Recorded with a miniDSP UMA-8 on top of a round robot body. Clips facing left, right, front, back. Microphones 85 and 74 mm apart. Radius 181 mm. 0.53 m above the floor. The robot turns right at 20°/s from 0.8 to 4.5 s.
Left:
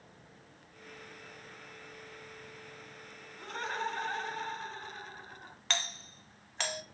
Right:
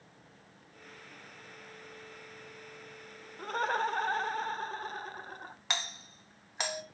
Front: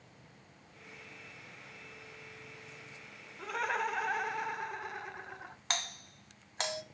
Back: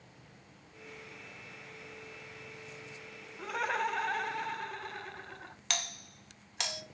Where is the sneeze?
I don't hear a sneeze.